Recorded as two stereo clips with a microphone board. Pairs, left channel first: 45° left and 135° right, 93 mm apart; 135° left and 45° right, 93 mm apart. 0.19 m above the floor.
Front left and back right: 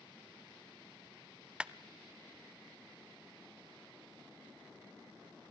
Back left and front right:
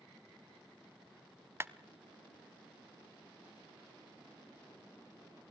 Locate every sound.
1.6 s a clap: 70° right, 0.8 m